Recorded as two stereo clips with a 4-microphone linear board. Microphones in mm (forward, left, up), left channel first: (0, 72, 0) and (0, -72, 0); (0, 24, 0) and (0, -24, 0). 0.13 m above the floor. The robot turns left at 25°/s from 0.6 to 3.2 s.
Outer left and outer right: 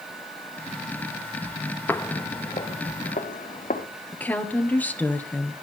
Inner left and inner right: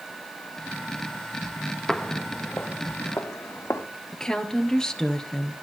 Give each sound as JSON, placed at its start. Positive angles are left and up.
{"t": 1.9, "sound": "footsteps", "side_deg": 15, "distance_m": 0.6}
{"t": 4.1, "sound": "a woman speaking", "side_deg": 10, "distance_m": 1.8}